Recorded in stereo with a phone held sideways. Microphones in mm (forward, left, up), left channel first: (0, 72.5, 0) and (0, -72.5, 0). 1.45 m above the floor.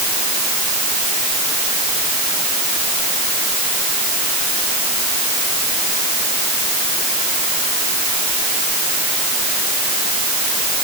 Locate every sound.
Only background noise.